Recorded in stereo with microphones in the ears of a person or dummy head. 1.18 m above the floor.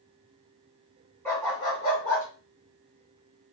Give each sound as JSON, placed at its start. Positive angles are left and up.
{"t": 1.2, "sound": "a dog barking", "side_deg": 10, "distance_m": 1.2}